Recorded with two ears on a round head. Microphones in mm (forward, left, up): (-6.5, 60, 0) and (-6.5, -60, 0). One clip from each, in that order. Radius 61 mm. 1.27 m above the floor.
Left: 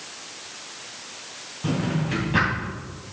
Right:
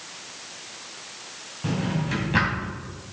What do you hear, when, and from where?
1.6 s a drawer: 20° right (ahead or behind), 2.5 m